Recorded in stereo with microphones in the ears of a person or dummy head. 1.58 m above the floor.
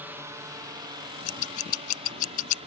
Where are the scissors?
45° left (ahead or behind).